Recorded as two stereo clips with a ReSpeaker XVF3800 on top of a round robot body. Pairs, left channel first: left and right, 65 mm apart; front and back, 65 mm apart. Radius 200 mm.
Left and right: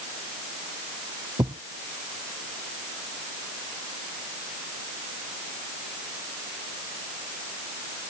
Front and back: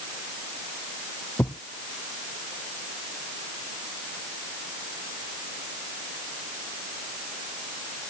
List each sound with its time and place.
1.4 s a thud: 65° right